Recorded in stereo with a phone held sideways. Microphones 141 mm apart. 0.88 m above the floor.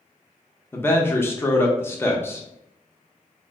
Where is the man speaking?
15° left (ahead or behind), 0.6 m.